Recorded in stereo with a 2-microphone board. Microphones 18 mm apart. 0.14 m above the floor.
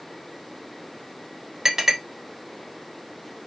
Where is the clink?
30° right (ahead or behind), 1.6 m.